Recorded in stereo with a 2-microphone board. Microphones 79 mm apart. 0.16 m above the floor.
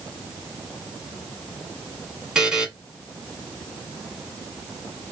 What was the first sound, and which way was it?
A buzzer, 10° right (ahead or behind).